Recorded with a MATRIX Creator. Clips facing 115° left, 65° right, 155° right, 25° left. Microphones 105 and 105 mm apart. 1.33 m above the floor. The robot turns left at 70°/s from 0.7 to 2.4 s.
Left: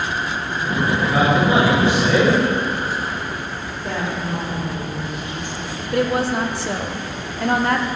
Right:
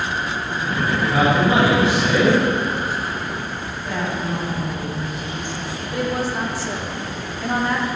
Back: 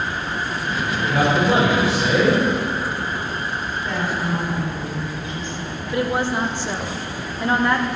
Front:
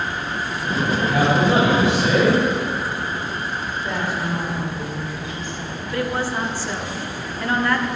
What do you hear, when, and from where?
0.9 s a man speaking: 145° right, 4.5 m; by 2.4 s 115° left, 4.5 m
3.8 s a woman speaking: 105° left, 4 m
5.9 s a woman speaking: 130° left, 0.9 m